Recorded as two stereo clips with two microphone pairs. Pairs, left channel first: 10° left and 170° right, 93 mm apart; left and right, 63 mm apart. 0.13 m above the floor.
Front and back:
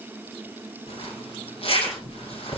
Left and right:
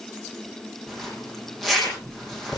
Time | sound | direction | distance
0.9 | a zipper | straight ahead | 5.5 m